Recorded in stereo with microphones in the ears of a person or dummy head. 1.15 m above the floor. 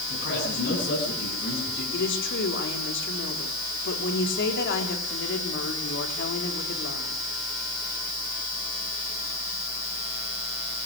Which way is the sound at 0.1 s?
55° left (ahead or behind).